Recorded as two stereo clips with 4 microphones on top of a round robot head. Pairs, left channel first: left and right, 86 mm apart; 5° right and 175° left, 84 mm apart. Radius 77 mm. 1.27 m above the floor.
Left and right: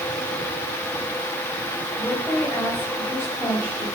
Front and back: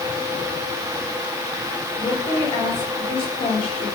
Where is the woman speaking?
15° left, 6.5 m.